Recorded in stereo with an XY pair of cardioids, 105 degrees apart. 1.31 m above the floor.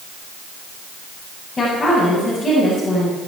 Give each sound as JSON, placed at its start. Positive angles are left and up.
{"t": 1.6, "sound": "a woman speaking", "azimuth_deg": 30, "distance_m": 8.0}